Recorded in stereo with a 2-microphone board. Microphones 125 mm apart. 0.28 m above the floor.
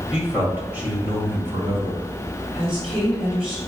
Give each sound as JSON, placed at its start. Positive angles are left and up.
{"t": 0.1, "sound": "a man speaking", "side_deg": -5, "distance_m": 1.2}
{"t": 2.5, "sound": "a woman speaking", "side_deg": -5, "distance_m": 1.6}